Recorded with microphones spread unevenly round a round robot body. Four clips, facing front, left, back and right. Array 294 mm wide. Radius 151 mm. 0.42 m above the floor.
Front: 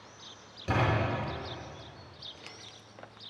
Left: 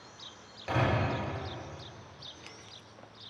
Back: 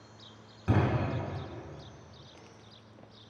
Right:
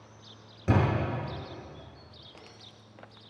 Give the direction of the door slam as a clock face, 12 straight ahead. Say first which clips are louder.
Right 3 dB, even; 4 o'clock.